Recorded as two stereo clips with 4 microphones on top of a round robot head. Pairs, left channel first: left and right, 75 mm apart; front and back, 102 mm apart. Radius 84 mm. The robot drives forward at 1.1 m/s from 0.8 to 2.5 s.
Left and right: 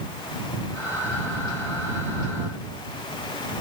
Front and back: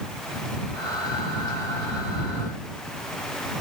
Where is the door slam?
I don't hear a door slam.